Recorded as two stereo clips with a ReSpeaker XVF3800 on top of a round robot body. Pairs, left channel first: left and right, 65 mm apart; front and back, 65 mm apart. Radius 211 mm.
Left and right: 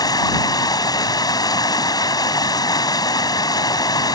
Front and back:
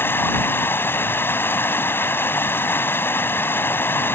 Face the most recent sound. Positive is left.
turn(degrees=60)